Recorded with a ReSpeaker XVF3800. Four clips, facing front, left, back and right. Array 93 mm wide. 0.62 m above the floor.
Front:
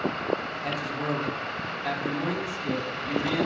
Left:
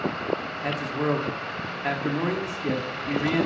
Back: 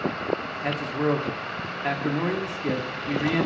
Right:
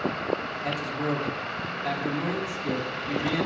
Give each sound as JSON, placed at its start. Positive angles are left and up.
{"t": 0.6, "sound": "a man speaking", "azimuth_deg": 135, "distance_m": 0.9}